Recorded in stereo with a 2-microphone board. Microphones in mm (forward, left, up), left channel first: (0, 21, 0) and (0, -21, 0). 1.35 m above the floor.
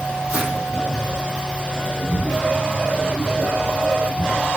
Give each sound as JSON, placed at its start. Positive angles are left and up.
{"t": 0.3, "sound": "footsteps", "side_deg": -30, "distance_m": 2.0}